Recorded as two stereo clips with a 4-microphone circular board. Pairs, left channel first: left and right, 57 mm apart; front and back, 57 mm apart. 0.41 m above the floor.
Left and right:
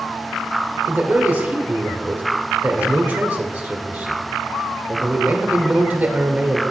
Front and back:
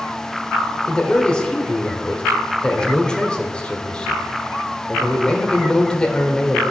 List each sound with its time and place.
0.8 s a man speaking: 60° right, 1.3 m